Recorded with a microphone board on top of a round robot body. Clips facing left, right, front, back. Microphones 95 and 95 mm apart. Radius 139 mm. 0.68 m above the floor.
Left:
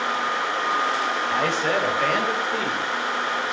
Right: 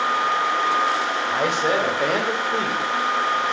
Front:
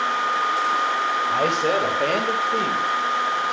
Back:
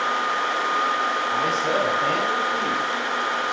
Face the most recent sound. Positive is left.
turn(degrees=-40)